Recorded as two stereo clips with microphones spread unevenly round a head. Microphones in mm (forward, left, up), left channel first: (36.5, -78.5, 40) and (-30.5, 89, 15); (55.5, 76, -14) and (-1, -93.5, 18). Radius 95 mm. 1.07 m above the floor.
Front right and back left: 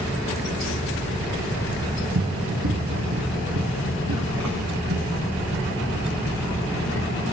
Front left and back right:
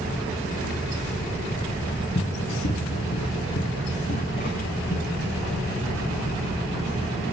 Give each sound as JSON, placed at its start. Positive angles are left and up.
{"t": 2.1, "sound": "running footsteps", "azimuth_deg": 130, "distance_m": 1.8}